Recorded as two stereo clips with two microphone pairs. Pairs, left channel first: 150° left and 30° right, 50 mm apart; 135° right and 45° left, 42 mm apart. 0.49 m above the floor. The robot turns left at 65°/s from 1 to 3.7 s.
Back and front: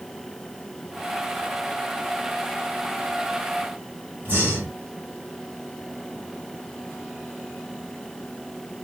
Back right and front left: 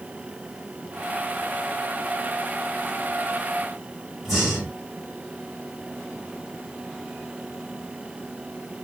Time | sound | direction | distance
4.2 | breathing | 55° right | 1.5 m